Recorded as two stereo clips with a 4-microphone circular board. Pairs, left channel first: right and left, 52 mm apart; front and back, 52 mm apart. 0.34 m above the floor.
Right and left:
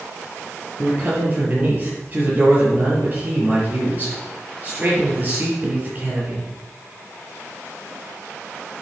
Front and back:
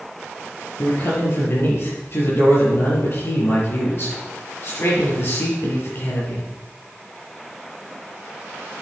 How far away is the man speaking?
About 6.5 m.